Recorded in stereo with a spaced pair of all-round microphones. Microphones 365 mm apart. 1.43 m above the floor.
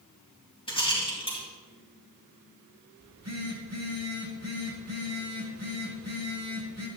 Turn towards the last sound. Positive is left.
turn(degrees=-45)  # may be behind; listen again after turning